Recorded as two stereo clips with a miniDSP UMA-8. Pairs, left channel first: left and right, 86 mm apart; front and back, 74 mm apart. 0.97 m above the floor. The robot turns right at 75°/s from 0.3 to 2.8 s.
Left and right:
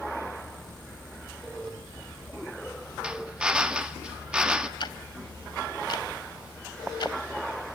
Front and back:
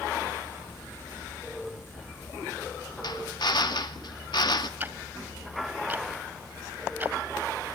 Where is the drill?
10° right, 1.7 m.